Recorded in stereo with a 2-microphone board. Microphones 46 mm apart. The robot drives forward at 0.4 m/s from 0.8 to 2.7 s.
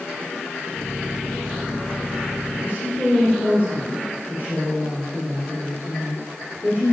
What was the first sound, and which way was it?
A woman speaking, 45° left (ahead or behind).